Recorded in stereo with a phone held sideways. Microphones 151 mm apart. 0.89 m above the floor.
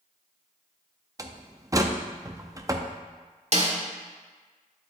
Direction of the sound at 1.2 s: 25° right (ahead or behind).